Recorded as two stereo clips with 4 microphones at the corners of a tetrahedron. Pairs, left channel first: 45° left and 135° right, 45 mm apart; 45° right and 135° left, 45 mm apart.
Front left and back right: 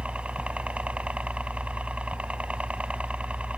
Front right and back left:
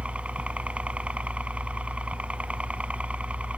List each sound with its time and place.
0.0 s a helicopter: straight behind